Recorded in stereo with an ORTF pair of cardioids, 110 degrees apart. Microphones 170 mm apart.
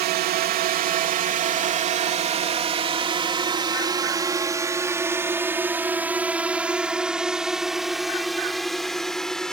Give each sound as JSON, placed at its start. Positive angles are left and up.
{"t": 0.0, "sound": "a drone", "azimuth_deg": -70}